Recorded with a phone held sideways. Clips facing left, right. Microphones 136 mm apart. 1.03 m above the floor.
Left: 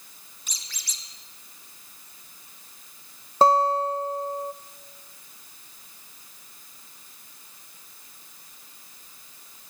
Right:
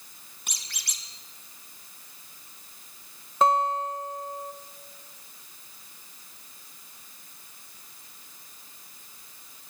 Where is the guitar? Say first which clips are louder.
Left 4 dB; 35° left (ahead or behind), 0.7 m.